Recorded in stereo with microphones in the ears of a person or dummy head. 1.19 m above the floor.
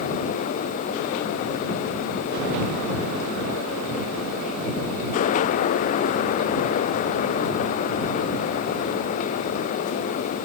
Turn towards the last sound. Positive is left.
No sound to turn to.